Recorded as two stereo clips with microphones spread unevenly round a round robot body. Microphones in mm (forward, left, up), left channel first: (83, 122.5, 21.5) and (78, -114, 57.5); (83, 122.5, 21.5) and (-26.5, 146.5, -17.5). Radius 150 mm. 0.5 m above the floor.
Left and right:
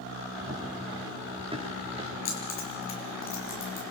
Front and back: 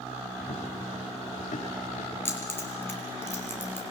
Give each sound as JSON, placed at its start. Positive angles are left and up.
{"t": 0.4, "sound": "running footsteps", "azimuth_deg": -15, "distance_m": 5.0}
{"t": 2.2, "sound": "keys jangling", "azimuth_deg": 55, "distance_m": 5.5}